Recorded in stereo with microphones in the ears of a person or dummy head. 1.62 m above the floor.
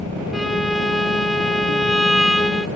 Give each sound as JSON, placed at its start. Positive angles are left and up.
{"t": 0.3, "sound": "a violin", "side_deg": 0, "distance_m": 1.0}